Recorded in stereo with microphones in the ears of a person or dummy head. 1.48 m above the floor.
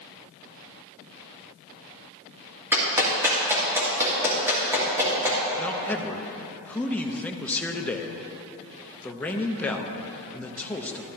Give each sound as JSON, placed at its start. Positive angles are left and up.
{"t": 2.7, "sound": "a clap", "side_deg": -10, "distance_m": 2.5}
{"t": 5.6, "sound": "a man speaking", "side_deg": 5, "distance_m": 0.7}